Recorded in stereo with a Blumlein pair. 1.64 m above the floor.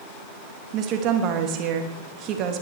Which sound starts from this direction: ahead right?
A woman speaking, at 0.7 s.